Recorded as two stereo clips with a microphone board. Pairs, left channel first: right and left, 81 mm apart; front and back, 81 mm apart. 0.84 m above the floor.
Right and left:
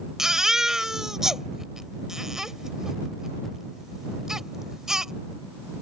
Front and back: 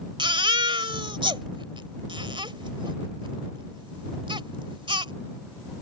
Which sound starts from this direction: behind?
A baby crying, at 0.2 s.